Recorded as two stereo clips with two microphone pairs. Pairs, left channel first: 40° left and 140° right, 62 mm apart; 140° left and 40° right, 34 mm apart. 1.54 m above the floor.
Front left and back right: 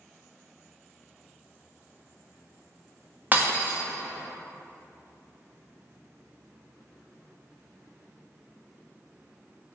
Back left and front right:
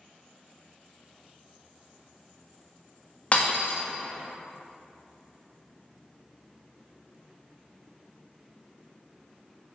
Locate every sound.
3.3 s breaking glass: 170° left, 1.2 m